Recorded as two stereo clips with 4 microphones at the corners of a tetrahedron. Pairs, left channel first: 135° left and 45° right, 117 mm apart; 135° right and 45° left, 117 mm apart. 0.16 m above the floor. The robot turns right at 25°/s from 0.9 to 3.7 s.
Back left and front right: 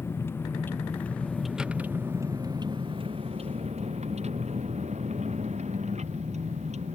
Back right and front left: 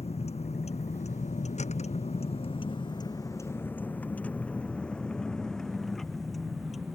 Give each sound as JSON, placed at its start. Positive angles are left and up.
{"t": 0.0, "sound": "a vehicle", "azimuth_deg": -160}